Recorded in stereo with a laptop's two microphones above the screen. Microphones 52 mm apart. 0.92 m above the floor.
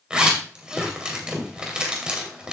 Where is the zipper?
15° right (ahead or behind), 2 m.